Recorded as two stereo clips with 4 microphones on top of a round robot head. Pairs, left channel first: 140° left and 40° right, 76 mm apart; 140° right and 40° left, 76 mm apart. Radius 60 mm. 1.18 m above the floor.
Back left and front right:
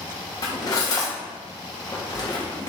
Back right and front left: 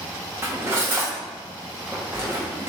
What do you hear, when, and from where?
0.4 s cutlery clinking: 100° left, 0.7 m